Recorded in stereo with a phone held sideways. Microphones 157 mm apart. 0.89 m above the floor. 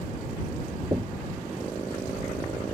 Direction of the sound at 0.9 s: 25° right (ahead or behind).